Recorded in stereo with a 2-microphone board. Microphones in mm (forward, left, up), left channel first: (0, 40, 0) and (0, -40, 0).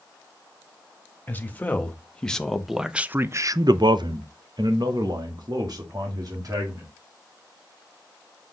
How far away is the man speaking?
About 1.4 m.